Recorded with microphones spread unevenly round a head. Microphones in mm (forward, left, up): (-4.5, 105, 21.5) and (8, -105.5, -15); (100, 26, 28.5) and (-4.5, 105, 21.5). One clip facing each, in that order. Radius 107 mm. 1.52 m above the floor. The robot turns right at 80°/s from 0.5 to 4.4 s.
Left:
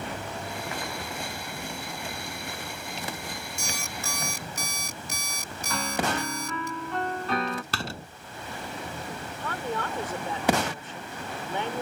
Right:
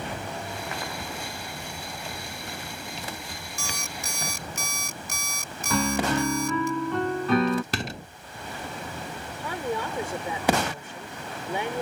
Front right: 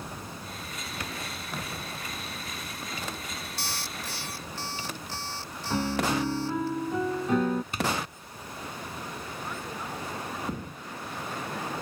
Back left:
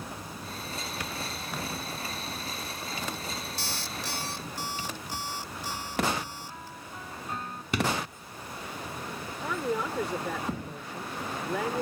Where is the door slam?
160° right.